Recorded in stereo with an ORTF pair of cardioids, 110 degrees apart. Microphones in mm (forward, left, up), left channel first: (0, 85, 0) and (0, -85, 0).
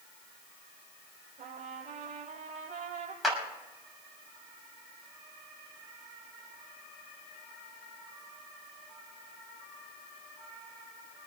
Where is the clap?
Straight ahead, 6.5 m.